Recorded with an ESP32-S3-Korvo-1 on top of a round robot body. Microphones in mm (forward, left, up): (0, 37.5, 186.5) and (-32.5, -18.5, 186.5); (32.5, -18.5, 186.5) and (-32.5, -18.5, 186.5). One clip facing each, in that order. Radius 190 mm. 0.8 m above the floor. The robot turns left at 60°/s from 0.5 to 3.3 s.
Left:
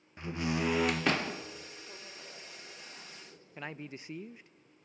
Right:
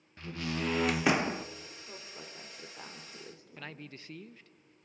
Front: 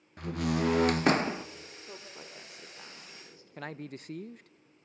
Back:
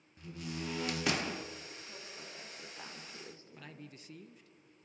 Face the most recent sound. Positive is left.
turn(degrees=-5)